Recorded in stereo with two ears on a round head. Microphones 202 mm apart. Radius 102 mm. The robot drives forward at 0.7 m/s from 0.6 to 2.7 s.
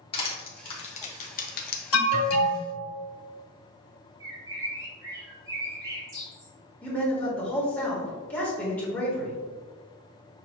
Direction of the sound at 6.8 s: 5° left (ahead or behind).